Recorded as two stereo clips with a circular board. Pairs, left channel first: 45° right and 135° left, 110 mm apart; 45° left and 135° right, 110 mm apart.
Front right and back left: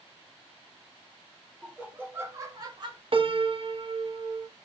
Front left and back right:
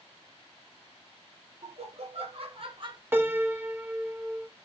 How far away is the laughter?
About 1.5 m.